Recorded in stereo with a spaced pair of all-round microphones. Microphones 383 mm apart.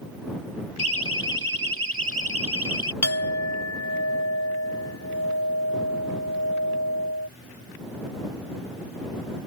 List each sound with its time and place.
0.8 s a siren: 70° right (ahead or behind); by 2.9 s 65° right (ahead or behind)
3.0 s a clink: 40° left (ahead or behind)